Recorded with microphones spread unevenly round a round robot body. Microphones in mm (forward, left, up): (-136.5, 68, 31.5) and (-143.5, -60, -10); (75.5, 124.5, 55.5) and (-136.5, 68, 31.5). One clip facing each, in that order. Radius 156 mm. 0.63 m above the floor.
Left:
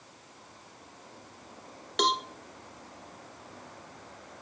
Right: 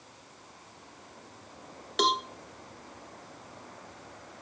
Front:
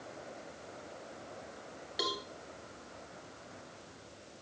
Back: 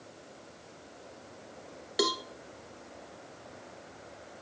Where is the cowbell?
170° right, 1.0 m.